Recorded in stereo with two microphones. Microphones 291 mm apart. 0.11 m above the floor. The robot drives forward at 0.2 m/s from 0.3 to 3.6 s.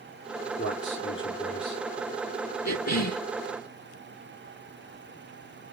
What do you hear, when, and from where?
0.6 s a man speaking: 40° left (ahead or behind), 1.4 m
2.6 s a cough: 60° left (ahead or behind), 2.5 m